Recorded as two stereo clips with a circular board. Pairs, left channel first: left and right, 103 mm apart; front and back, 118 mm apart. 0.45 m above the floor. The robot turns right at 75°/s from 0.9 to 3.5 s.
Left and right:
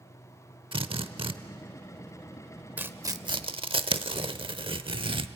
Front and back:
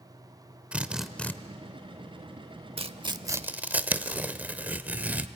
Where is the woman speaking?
No woman speaking in this recording.